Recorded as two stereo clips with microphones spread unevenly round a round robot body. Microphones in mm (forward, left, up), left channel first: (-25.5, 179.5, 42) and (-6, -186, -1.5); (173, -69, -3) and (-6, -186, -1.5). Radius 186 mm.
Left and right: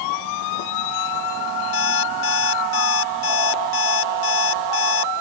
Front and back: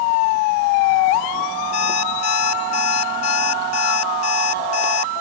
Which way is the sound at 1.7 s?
35° left.